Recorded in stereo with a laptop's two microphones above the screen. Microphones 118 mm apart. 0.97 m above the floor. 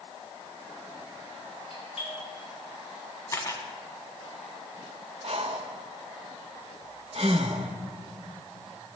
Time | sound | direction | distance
1.7 | a doorbell | 65° left (ahead or behind) | 3.5 m
3.3 | a camera shutter | 30° left (ahead or behind) | 1.5 m
5.2 | breathing | 55° right (ahead or behind) | 0.7 m